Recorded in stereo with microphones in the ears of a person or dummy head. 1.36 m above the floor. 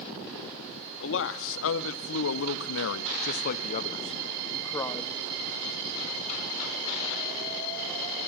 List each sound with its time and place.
1.0 s a man speaking: 70° left (ahead or behind), 2 m; by 5.2 s 10° left (ahead or behind), 1.7 m